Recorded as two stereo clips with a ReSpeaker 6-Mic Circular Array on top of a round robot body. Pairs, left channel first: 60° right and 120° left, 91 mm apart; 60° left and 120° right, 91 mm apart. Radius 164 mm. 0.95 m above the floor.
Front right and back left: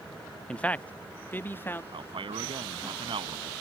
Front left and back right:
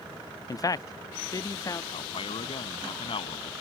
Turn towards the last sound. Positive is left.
turn(degrees=90)